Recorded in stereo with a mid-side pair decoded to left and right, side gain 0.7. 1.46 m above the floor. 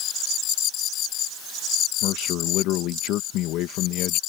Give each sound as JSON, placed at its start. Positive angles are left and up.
{"t": 2.0, "sound": "a man speaking", "azimuth_deg": 60}